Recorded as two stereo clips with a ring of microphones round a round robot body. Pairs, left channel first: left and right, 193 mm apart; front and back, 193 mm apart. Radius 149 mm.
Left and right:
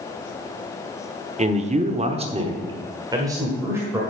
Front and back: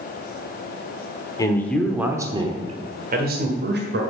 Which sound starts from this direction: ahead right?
A man speaking, at 1.4 s.